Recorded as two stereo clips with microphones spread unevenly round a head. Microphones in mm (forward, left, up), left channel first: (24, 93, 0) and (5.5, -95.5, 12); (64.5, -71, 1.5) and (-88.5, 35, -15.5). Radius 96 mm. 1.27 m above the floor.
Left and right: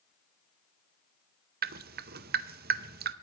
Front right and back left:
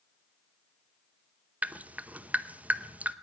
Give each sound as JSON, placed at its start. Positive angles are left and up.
{"t": 1.6, "sound": "dripping", "azimuth_deg": -130, "distance_m": 0.7}